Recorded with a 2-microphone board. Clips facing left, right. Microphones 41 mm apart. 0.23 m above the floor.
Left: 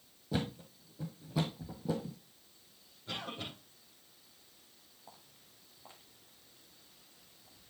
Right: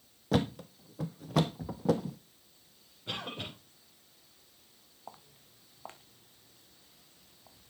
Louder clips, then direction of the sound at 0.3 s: Right 7 dB; 70° right (ahead or behind).